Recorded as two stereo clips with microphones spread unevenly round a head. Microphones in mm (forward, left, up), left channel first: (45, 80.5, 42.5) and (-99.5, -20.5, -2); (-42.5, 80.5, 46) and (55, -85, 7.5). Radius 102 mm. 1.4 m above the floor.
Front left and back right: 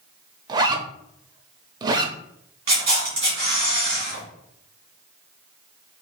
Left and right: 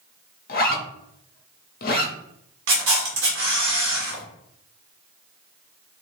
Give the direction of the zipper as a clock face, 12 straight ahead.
7 o'clock.